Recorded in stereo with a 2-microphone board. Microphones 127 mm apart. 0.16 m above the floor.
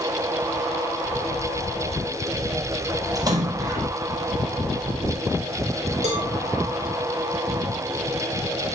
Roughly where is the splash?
Right.